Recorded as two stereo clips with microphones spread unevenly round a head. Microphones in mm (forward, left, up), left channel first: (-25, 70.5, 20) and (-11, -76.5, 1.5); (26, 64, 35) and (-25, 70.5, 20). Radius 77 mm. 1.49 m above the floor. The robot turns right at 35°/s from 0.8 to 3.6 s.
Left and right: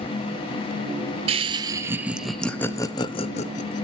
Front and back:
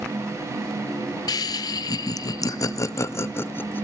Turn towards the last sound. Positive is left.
turn(degrees=50)